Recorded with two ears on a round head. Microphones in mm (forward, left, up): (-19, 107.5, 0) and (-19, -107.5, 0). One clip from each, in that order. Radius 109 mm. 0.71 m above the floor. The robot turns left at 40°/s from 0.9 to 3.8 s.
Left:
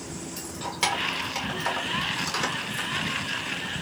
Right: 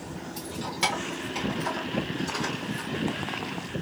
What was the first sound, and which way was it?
Keys jangling, 5° left (ahead or behind).